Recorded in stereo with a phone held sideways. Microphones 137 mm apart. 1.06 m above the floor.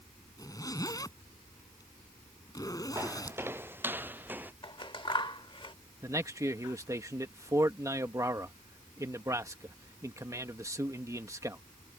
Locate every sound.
0.4 s a zipper: 25° left (ahead or behind)
3.0 s footsteps: 20° right (ahead or behind); by 4.5 s 15° right (ahead or behind)
4.6 s scissors: 35° left (ahead or behind)
6.0 s a man speaking: 20° right (ahead or behind)